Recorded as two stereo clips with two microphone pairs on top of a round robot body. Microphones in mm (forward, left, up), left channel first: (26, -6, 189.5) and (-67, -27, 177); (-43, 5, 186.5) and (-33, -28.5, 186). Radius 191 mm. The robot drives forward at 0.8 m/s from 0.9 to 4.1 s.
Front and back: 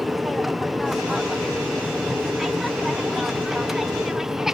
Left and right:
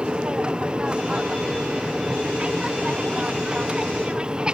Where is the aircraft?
95° right; by 4.5 s 100° right.